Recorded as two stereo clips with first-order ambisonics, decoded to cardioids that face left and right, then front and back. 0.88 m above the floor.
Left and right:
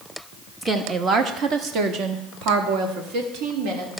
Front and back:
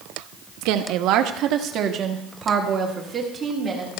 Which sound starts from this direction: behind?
A woman speaking, at 0.6 s.